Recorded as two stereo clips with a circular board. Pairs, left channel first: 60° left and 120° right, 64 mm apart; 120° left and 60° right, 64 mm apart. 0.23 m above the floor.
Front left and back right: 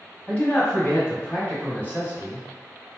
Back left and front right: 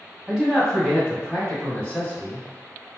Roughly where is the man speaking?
Ahead left.